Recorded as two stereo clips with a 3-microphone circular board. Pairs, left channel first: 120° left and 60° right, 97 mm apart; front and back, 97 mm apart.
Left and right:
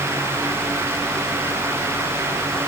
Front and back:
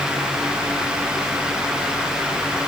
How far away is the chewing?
No chewing in this recording.